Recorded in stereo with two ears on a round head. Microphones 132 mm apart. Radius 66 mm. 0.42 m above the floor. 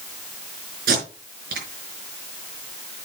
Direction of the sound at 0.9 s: 65° right (ahead or behind).